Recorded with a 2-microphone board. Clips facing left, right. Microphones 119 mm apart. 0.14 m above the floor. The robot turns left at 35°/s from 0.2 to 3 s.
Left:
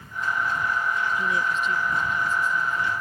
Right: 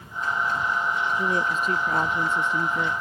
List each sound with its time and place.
1.2 s a woman speaking: 30° right; by 2.9 s 90° right